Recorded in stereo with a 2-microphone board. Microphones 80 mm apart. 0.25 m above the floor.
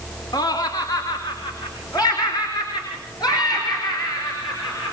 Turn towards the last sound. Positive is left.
turn(degrees=55)  # may be behind; listen again after turning